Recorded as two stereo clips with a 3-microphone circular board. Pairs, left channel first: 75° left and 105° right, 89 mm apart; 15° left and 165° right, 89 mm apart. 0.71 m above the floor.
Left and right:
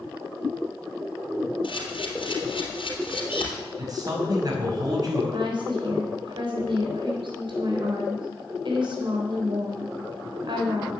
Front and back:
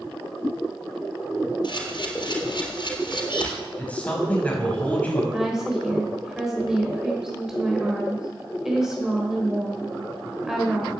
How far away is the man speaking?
About 4.5 m.